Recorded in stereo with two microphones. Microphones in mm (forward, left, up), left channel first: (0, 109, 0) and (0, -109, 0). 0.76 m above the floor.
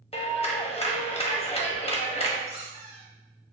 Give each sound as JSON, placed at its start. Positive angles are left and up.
{"t": 0.1, "sound": "a clap", "side_deg": 25, "distance_m": 0.7}
{"t": 2.5, "sound": "a squeak", "side_deg": -30, "distance_m": 1.1}